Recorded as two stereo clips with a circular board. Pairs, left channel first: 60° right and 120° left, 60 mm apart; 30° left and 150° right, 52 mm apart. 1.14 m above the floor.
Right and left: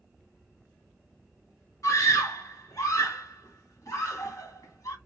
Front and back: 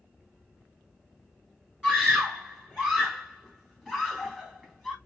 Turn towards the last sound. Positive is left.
turn(degrees=-45)